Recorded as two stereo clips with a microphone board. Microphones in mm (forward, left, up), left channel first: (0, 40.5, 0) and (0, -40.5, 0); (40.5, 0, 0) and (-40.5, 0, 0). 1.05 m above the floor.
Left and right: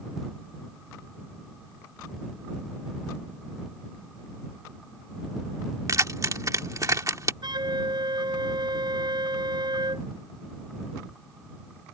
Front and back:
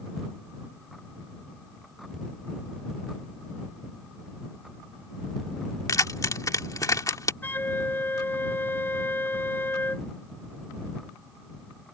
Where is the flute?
65° right.